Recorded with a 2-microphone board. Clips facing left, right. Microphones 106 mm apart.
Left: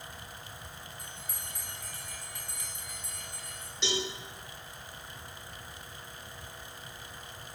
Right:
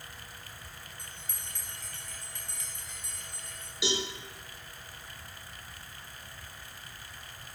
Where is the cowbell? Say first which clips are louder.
Right 1 dB; 10° right (ahead or behind), 3.5 m.